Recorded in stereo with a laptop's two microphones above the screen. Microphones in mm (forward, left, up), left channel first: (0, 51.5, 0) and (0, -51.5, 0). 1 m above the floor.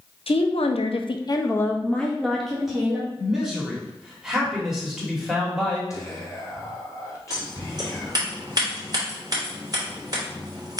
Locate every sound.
0.3 s a woman speaking: 65° left (ahead or behind), 0.7 m; by 3.1 s 5° right (ahead or behind), 1.4 m
3.2 s a man speaking: 5° right (ahead or behind), 1.9 m
5.9 s whispering: 30° left (ahead or behind), 1.1 m
7.3 s scissors: 40° right (ahead or behind), 2 m